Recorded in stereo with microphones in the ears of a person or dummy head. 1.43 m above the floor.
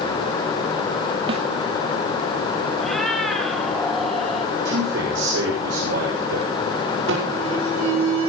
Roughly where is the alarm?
Right.